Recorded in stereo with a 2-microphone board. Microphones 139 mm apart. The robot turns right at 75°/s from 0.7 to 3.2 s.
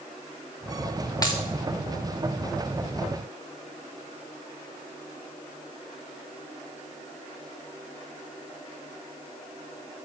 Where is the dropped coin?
25° left (ahead or behind), 1.6 m; by 1.4 s 40° left (ahead or behind), 1.6 m.